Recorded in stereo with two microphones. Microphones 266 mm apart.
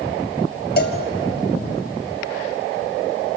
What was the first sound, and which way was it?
A cowbell, 35° left (ahead or behind).